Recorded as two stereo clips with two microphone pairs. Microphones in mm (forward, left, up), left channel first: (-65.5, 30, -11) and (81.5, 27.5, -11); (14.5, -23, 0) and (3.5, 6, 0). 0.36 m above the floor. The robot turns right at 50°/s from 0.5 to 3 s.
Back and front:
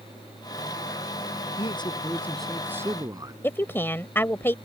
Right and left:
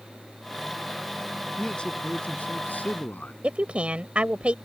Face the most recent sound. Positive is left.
turn(degrees=110)